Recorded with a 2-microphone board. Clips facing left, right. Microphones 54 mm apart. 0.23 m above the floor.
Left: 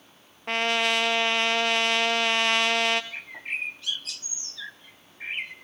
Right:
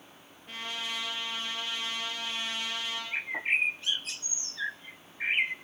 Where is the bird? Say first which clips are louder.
Right 5 dB; 30° right (ahead or behind), 0.5 m.